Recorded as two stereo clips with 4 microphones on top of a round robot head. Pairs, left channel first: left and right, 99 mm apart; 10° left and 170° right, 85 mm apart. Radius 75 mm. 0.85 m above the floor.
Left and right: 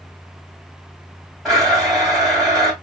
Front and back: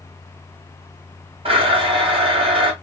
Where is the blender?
Straight behind, 1.7 m.